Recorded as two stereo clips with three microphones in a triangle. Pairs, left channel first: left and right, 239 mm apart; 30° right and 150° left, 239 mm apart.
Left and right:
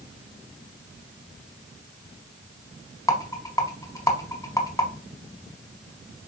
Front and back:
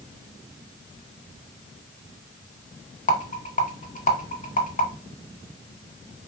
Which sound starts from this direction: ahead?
A rattle, at 3.1 s.